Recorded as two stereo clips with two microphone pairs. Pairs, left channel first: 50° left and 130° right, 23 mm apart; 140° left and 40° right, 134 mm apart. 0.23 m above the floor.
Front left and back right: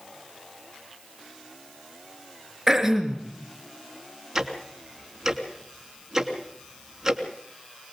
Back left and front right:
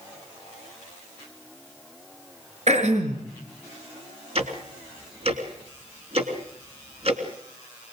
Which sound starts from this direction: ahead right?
Throat clearing, at 2.7 s.